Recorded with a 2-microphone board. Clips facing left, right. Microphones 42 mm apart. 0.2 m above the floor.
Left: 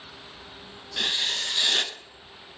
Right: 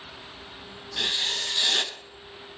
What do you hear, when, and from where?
1.0 s writing: 10° left (ahead or behind), 0.6 m